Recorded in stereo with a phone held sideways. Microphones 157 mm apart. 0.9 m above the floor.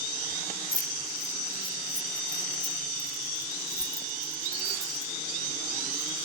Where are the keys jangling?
65° left (ahead or behind); by 6.3 s 75° left (ahead or behind).